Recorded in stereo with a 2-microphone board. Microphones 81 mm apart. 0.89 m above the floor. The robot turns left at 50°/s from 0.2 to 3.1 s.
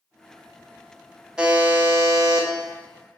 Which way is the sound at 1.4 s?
10° right.